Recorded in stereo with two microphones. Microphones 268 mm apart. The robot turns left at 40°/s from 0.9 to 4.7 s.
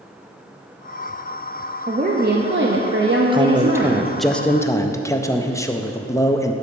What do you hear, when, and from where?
1.9 s a woman speaking: 40° right, 0.6 m; by 4.1 s 130° right, 0.6 m
3.3 s a man speaking: 145° right, 0.5 m; by 6.5 s 160° left, 0.5 m